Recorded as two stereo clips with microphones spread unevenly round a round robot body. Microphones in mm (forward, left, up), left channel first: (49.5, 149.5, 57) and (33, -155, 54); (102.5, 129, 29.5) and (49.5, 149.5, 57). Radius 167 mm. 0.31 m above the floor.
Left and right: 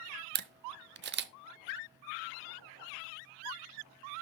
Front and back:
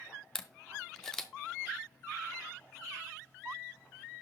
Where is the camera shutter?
65° right, 0.9 m.